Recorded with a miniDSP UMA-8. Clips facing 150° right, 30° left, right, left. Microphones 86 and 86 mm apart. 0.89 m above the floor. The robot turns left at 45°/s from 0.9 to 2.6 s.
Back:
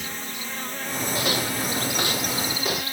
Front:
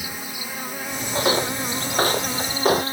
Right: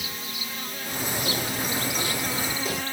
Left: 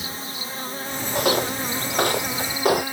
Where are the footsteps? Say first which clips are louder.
Front 6 dB, left 10 dB; 85° left; by 2.8 s 75° left.